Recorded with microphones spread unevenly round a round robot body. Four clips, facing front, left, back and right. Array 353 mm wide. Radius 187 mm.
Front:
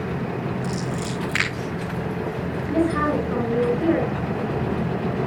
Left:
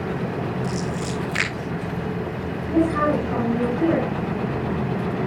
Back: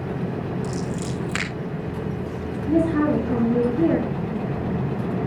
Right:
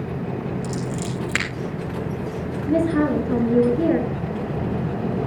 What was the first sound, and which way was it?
Scissors, 120° right.